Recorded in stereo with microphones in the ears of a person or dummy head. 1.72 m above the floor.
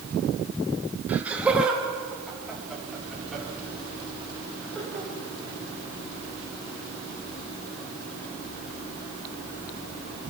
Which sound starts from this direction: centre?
Laughter, at 1.1 s.